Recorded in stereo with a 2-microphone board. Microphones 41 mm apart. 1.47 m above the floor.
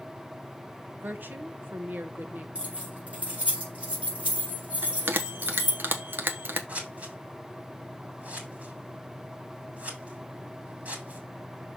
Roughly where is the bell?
Right.